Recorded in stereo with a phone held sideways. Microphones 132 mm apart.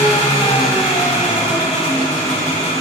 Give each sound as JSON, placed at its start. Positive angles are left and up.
{"t": 0.0, "sound": "an engine running", "side_deg": 65, "distance_m": 3.0}